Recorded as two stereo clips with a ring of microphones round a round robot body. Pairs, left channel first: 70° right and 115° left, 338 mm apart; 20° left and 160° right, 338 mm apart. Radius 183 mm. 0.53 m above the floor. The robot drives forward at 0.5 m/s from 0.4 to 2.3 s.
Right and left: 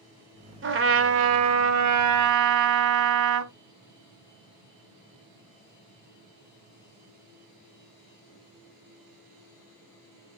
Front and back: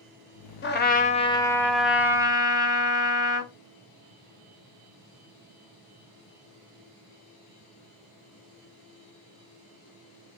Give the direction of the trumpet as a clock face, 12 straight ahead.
10 o'clock.